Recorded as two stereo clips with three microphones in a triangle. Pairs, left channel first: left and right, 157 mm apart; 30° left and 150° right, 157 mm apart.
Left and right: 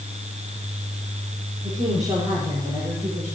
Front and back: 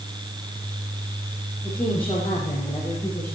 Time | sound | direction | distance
1.6 | a woman speaking | 40° right | 5.5 m